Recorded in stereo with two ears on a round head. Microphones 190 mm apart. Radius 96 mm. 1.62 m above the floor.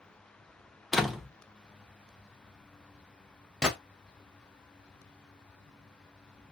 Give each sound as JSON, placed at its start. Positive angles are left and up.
{"t": 0.9, "sound": "a door slam", "side_deg": 0, "distance_m": 0.5}
{"t": 3.6, "sound": "a gunshot", "side_deg": -5, "distance_m": 0.8}